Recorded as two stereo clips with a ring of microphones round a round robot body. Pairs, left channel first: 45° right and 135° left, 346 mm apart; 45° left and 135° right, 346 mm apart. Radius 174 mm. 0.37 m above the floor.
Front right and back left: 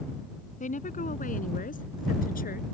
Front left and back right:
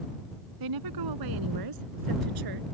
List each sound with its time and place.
0.6 s a woman speaking: 115° right; by 2.6 s 110° right